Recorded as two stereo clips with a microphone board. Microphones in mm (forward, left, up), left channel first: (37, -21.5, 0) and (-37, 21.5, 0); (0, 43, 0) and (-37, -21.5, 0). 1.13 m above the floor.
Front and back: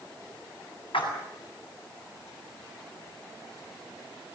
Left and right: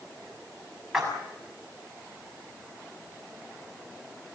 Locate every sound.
0.9 s a splash: 35° right, 7 m